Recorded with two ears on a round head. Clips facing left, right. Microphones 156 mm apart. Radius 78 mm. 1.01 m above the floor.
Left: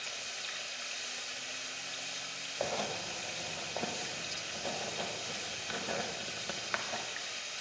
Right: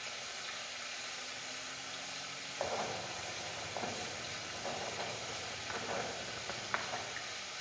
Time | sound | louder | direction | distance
0.0 | running water | left 1 dB | 40° left (ahead or behind) | 0.9 m
2.6 | writing | left 2 dB | 40° left (ahead or behind) | 0.8 m